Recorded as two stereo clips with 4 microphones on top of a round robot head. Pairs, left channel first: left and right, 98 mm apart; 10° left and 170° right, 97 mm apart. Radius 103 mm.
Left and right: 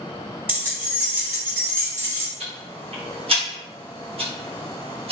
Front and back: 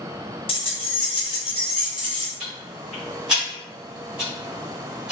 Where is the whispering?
No whispering in this recording.